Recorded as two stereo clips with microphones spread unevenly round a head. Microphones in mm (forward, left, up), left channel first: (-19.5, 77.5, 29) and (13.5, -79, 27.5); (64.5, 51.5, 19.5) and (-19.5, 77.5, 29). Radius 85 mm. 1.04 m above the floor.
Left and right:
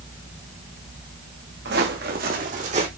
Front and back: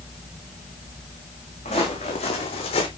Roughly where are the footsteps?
Ahead right.